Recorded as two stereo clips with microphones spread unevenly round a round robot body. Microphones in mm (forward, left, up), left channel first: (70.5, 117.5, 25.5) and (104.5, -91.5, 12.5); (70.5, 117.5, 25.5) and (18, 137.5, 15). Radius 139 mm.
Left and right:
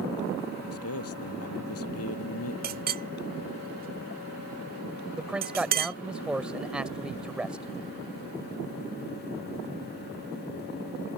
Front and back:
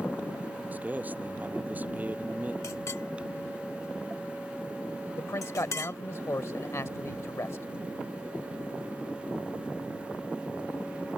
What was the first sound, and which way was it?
A man speaking, 100° left.